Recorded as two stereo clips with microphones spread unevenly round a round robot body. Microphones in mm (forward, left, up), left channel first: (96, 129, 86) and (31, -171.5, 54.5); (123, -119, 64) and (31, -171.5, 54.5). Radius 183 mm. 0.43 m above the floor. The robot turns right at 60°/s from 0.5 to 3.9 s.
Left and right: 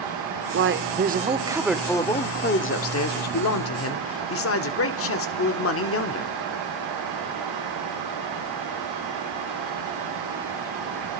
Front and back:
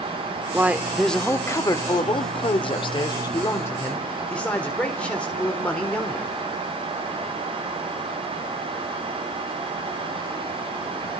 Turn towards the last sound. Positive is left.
turn(degrees=110)